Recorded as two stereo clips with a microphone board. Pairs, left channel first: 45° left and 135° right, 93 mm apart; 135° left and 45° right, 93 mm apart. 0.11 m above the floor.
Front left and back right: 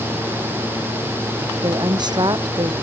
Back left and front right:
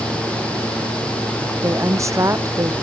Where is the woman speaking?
100° right.